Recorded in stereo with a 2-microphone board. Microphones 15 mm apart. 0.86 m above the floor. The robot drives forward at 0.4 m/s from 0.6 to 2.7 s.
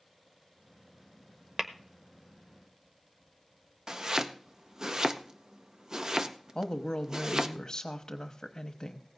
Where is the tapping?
35° right (ahead or behind), 0.8 m.